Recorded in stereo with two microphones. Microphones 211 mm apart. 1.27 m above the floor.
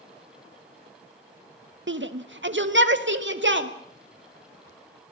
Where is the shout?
65° right (ahead or behind), 1.1 m; by 3.7 s 60° right (ahead or behind), 2.5 m.